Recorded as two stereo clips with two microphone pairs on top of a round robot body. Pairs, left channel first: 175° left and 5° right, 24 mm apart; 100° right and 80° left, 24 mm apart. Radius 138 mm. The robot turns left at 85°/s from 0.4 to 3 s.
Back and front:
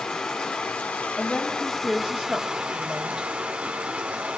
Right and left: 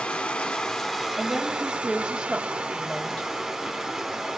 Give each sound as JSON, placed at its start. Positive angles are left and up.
{"t": 0.0, "sound": "running water", "azimuth_deg": -150, "distance_m": 1.3}
{"t": 1.2, "sound": "a woman speaking", "azimuth_deg": 95, "distance_m": 2.0}